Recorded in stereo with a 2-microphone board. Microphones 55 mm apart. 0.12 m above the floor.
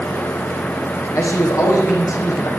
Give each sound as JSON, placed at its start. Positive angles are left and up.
{"t": 1.1, "sound": "a man speaking", "side_deg": 70, "distance_m": 5.0}